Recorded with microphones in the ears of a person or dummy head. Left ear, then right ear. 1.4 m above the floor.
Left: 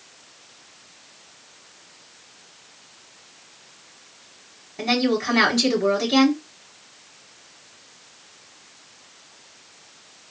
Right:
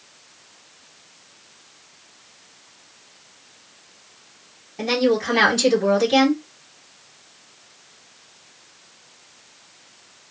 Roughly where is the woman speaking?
Centre.